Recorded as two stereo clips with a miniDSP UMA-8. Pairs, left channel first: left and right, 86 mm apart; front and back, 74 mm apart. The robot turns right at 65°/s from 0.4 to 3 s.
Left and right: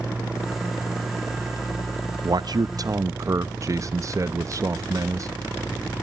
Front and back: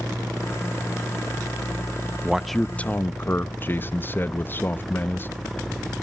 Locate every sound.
2.2 s a man speaking: 100° right, 0.7 m; by 5.3 s 55° right, 0.7 m